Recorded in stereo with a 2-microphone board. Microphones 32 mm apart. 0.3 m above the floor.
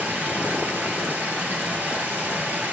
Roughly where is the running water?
Right.